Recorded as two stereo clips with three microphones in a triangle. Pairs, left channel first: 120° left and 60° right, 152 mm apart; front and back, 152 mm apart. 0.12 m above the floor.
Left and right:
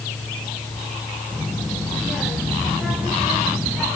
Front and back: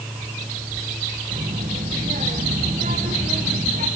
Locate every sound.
1.3 s a child speaking: 150° right, 6.5 m